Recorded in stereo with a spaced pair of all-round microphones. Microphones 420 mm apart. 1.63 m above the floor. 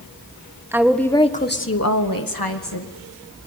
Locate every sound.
0.7 s a woman speaking: 5° right (ahead or behind), 1.7 m; by 2.9 s 80° left, 2 m